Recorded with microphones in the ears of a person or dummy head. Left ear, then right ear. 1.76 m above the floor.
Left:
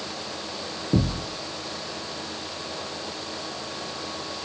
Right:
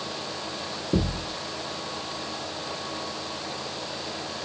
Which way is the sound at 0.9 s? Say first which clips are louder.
Left 1 dB; centre (ahead or behind).